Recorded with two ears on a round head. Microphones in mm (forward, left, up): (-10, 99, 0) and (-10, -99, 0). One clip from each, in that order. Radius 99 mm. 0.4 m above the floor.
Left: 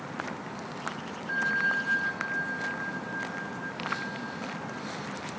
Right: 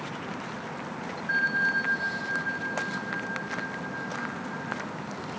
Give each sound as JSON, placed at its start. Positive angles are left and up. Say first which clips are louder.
{"t": 1.3, "sound": "a bell", "louder": "right 2 dB", "side_deg": -35, "distance_m": 2.5}